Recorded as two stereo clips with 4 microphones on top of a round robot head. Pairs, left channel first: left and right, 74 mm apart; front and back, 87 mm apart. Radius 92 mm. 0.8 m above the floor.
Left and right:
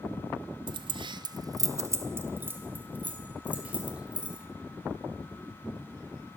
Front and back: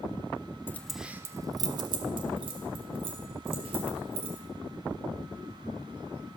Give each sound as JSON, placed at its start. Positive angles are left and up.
{"t": 0.7, "sound": "keys jangling", "azimuth_deg": -70, "distance_m": 0.6}